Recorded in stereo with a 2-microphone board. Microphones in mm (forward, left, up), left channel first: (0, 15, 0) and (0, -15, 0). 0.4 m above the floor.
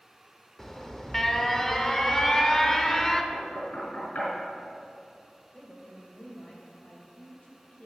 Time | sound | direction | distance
0.6 | an alarm | 15° left (ahead or behind) | 0.7 m
3.3 | knocking | 60° left (ahead or behind) | 4 m
5.5 | a woman speaking | 45° left (ahead or behind) | 2 m